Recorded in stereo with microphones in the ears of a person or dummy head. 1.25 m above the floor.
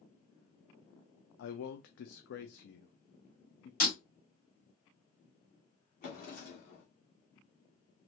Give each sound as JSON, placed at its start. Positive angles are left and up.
{"t": 1.4, "sound": "a man speaking", "side_deg": 75, "distance_m": 0.5}
{"t": 3.8, "sound": "breaking glass", "side_deg": 45, "distance_m": 1.5}
{"t": 6.0, "sound": "a drawer", "side_deg": 45, "distance_m": 1.2}